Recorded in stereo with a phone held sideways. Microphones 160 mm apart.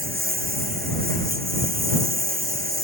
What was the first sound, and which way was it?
A lawn mower, 70° right (ahead or behind).